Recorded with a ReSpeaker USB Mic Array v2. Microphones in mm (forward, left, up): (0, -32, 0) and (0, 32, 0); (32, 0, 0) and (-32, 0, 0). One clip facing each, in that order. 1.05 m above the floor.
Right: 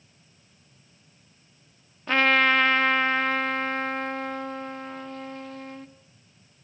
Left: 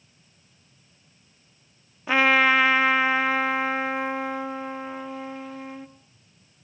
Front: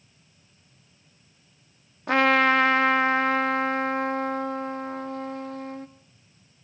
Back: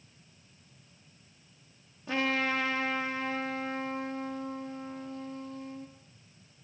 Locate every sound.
2.1 s a trumpet: 10° left, 1.7 m